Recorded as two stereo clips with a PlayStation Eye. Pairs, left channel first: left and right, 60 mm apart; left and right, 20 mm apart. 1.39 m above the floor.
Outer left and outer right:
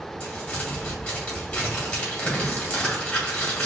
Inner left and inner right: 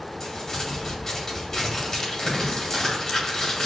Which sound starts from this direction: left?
Crumpling, at 0.2 s.